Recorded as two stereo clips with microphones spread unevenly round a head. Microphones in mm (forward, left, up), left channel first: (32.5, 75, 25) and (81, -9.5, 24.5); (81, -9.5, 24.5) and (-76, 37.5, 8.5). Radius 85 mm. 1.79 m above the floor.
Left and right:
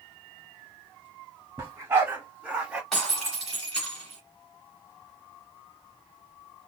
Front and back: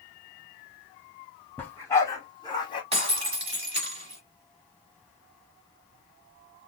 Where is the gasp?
No gasp in this recording.